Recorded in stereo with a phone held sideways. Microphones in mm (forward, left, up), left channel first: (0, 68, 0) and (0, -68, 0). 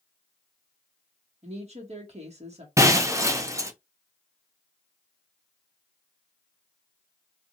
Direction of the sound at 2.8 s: 20° right (ahead or behind).